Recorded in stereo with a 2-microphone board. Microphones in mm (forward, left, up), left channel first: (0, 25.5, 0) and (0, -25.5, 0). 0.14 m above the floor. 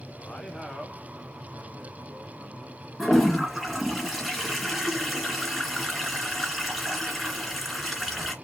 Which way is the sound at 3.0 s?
5° right (ahead or behind).